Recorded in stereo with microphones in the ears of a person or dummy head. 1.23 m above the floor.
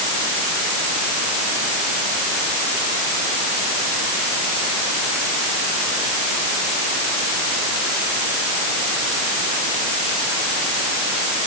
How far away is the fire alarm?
I don't hear a fire alarm.